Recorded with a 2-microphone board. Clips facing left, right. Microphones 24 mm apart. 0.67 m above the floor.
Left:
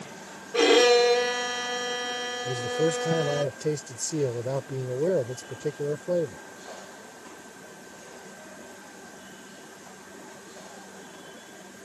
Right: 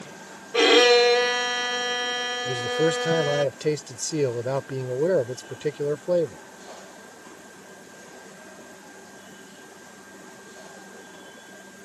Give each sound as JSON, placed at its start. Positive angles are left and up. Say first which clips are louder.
{"t": 0.5, "sound": "a violin", "louder": "right 2 dB", "side_deg": -25}
{"t": 2.5, "sound": "a man speaking", "louder": "right 2 dB", "side_deg": -50}